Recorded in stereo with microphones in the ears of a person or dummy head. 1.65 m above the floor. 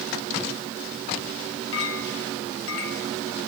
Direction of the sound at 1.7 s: 70° left (ahead or behind).